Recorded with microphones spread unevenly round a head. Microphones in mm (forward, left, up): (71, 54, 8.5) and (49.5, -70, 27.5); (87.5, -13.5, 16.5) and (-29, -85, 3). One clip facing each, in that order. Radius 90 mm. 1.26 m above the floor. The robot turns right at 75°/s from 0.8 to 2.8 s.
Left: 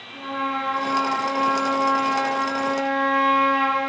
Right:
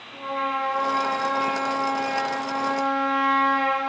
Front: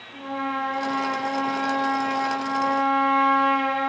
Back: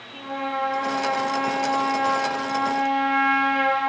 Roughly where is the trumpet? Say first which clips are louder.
Even, even; ahead right.